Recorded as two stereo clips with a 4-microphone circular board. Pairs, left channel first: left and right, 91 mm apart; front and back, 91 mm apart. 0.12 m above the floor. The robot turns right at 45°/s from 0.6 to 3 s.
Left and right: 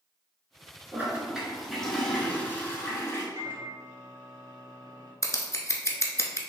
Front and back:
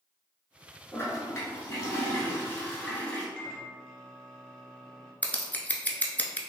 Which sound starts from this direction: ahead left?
Scissors, at 5.2 s.